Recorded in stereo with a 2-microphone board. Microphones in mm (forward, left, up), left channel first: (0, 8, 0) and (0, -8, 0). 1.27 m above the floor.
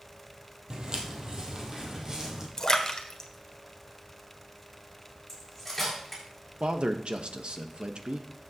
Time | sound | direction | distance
0.7 | footsteps | 45° right (ahead or behind) | 2 m
2.6 | a splash | 30° left (ahead or behind) | 1.2 m
5.3 | cutlery clinking | 5° left (ahead or behind) | 5.5 m
6.6 | a man speaking | 70° right (ahead or behind) | 1.0 m